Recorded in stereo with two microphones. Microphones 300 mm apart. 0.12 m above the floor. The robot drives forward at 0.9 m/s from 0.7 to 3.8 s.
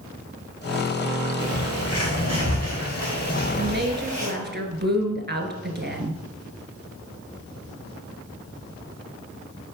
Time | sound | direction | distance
1.4 | a bird | 45° left (ahead or behind) | 5 m
3.6 | a woman speaking | 40° right (ahead or behind) | 1.4 m